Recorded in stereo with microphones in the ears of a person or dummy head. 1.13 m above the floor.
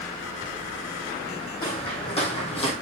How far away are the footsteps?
About 3 m.